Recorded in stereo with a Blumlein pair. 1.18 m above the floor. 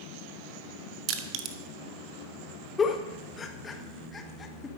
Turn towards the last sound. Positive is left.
turn(degrees=20)